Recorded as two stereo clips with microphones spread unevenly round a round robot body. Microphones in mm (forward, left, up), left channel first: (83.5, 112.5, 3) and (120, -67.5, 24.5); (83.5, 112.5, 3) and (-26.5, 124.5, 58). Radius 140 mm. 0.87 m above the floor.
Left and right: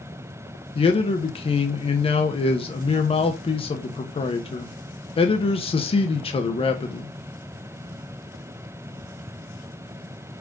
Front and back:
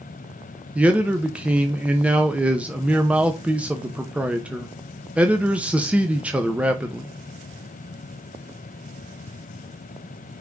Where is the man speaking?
70° left, 1.1 m.